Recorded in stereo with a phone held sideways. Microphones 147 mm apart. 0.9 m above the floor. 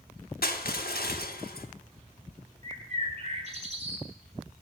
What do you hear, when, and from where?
0.4 s crushing: 75° left (ahead or behind), 1.0 m
2.6 s a bird: 45° right (ahead or behind), 2.0 m